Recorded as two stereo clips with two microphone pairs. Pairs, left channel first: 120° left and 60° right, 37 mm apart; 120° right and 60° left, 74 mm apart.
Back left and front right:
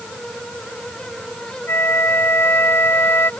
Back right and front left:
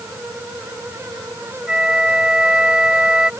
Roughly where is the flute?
Behind left.